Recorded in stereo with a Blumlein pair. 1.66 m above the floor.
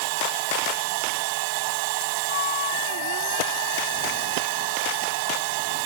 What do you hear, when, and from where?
0.0 s a machine running: 45° right
2.3 s a flute: 55° left